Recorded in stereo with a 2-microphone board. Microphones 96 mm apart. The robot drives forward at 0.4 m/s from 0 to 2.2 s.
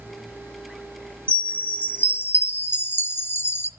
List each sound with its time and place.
1.3 s a chime: 15° left (ahead or behind), 1.0 m; by 3.7 s 25° left (ahead or behind), 0.6 m